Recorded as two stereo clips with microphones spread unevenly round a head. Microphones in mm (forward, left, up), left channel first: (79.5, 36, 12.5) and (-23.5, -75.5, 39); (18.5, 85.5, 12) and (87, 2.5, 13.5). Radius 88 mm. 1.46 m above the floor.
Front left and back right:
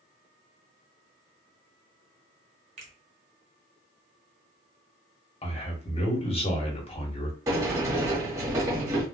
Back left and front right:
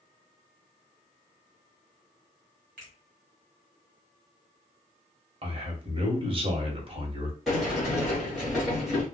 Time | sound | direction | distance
2.8 | a finger snap | 90° right | 1.3 m
5.4 | a man speaking | 10° right | 1.3 m
7.5 | a sliding door | 140° right | 1.3 m